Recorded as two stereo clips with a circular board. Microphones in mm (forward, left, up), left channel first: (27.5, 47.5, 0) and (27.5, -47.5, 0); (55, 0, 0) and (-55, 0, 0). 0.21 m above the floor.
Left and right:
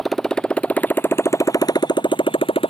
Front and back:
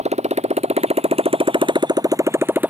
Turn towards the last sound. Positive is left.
turn(degrees=105)